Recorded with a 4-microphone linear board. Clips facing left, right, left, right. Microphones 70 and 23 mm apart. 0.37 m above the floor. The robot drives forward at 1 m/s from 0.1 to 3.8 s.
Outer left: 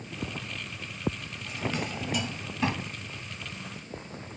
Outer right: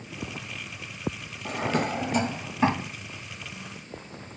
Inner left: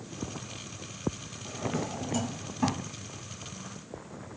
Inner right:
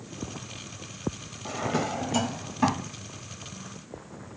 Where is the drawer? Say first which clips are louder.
Outer right 6 dB, inner right 5 dB; 60° right (ahead or behind); by 2.9 s 30° right (ahead or behind).